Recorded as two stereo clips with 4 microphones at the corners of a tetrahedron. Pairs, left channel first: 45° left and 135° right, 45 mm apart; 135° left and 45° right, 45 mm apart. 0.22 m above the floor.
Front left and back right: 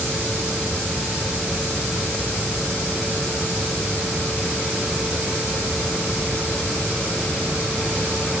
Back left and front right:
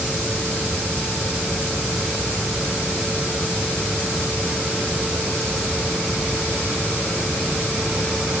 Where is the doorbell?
I don't hear a doorbell.